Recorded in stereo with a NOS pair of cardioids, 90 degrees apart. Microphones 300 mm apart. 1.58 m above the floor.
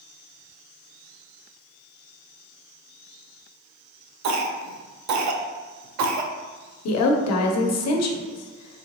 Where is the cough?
65° right, 0.8 m.